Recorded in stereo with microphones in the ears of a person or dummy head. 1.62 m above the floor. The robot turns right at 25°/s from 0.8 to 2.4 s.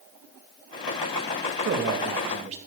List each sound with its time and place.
1.6 s a man speaking: 60° right (ahead or behind), 3 m; by 2.6 s 40° right (ahead or behind), 3 m